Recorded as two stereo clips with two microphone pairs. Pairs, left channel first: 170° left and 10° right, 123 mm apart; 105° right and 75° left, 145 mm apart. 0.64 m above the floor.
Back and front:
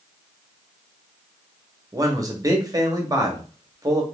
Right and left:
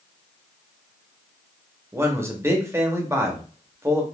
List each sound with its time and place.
1.9 s a man speaking: 10° left, 0.7 m